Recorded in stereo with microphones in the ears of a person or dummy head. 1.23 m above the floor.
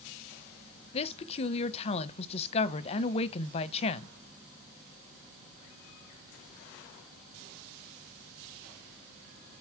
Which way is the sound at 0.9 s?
35° left (ahead or behind).